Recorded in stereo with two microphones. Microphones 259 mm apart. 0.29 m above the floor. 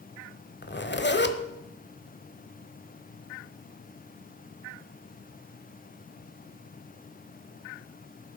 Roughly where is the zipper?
Left.